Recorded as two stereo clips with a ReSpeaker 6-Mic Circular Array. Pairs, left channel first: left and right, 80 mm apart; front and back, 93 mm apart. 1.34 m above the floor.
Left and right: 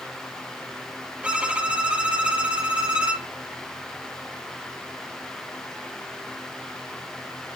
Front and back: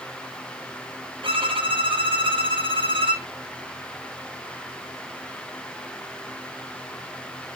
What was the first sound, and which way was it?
A violin, 165° right.